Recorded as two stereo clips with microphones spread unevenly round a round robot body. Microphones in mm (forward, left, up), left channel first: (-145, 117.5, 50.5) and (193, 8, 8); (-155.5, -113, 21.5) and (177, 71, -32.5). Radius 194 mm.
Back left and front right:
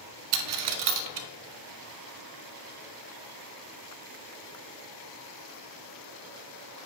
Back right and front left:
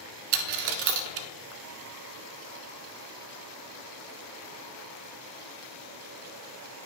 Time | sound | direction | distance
0.3 | a dropped coin | 20° left | 0.6 m